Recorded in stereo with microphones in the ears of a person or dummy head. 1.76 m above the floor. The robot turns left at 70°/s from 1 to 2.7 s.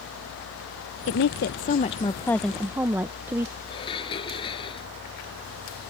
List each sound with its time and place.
1.1 s a woman speaking: 100° left; by 3.5 s 15° right
3.7 s dishes clattering: 30° left (ahead or behind)